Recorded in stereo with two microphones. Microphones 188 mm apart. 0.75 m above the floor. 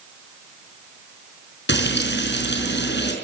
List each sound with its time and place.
1.7 s frying: 70° left (ahead or behind), 5 m